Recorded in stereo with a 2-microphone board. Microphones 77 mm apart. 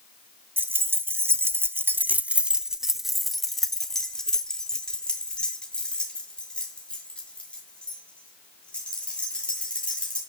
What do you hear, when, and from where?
0.6 s keys jangling: 25° right (ahead or behind), 0.9 m; by 10.2 s 15° left (ahead or behind), 4.5 m